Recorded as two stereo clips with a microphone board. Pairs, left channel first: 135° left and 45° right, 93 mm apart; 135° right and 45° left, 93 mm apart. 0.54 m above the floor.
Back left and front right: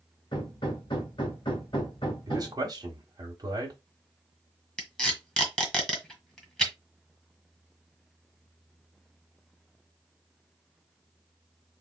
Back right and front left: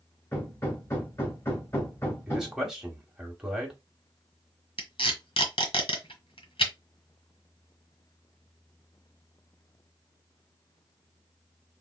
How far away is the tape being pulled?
About 1.3 m.